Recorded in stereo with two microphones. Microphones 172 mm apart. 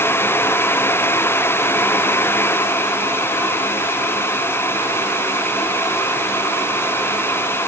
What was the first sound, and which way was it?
Only background noise.